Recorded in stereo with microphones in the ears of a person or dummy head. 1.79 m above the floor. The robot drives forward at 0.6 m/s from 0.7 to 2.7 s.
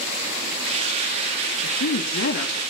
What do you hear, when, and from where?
1.6 s a woman speaking: 65° left (ahead or behind), 3.5 m; by 2.6 s 60° left (ahead or behind), 4 m